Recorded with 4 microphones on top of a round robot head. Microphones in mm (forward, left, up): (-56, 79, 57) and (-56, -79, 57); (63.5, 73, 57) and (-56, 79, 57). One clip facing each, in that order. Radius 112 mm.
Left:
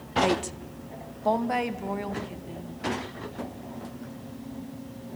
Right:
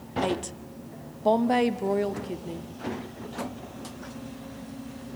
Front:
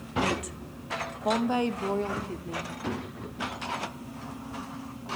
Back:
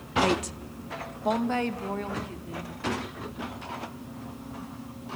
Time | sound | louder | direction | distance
0.2 | a woman speaking | left 2 dB, back 4 dB | 160° left | 1.0 m